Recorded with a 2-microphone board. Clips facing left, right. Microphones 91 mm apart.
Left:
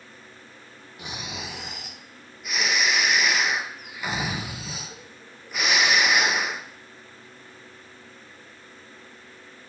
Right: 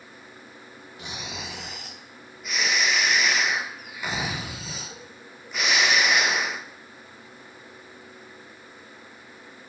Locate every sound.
1.0 s snoring: centre (ahead or behind), 0.5 m